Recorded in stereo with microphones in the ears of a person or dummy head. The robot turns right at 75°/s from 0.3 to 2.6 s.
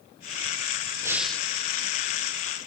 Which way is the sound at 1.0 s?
15° right.